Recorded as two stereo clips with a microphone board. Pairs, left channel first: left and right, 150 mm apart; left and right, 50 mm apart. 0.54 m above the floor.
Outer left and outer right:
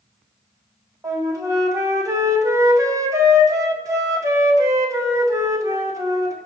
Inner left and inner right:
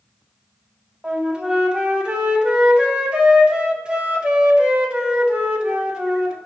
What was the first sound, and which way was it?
A flute, 20° right (ahead or behind).